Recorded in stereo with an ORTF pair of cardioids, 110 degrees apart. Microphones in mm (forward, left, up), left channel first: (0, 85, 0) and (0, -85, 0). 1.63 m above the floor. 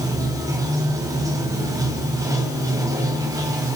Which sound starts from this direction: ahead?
Running water, at 0.0 s.